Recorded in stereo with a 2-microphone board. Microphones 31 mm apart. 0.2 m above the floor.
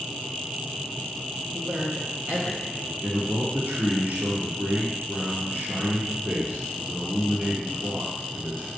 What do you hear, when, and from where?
1.5 s a man speaking: 45° right (ahead or behind), 2 m
3.0 s a man speaking: 50° right (ahead or behind), 2 m